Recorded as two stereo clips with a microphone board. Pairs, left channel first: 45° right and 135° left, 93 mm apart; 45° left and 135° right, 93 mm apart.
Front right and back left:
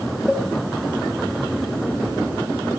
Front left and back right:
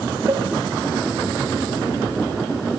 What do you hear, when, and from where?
0.3 s a cowbell: 115° right, 1.8 m